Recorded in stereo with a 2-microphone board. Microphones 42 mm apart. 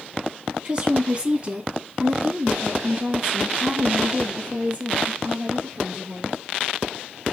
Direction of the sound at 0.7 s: 25° right (ahead or behind).